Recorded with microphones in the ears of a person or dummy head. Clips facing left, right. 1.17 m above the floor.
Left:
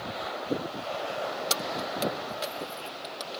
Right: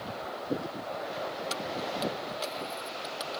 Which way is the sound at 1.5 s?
60° left (ahead or behind).